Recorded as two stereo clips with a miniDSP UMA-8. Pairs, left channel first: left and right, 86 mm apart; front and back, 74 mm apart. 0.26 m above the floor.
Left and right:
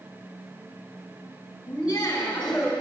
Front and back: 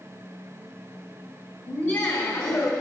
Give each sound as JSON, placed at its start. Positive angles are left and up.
{"t": 1.7, "sound": "laughter", "azimuth_deg": 35, "distance_m": 1.7}